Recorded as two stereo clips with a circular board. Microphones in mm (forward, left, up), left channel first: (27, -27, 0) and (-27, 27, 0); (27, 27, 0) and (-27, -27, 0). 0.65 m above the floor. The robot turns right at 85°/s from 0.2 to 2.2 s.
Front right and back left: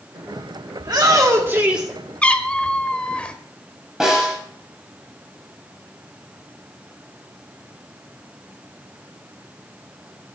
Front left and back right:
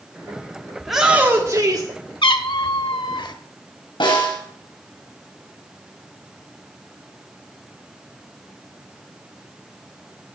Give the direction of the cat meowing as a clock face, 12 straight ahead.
11 o'clock.